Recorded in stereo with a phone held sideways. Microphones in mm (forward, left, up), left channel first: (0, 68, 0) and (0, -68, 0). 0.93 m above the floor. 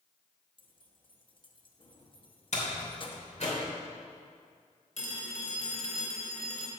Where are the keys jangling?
40° left (ahead or behind), 0.8 m.